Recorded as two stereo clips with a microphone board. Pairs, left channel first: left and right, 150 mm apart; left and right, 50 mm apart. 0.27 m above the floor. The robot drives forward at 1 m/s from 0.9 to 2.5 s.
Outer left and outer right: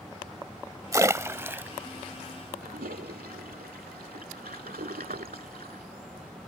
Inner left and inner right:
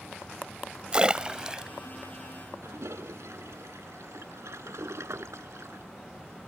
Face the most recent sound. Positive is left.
turn(degrees=-85)